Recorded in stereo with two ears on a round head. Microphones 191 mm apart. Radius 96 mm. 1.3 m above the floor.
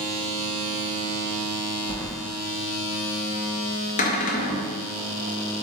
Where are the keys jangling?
10° left (ahead or behind), 0.5 m.